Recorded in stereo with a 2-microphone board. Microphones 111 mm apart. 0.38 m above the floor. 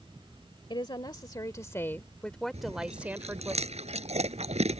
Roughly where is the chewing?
Right.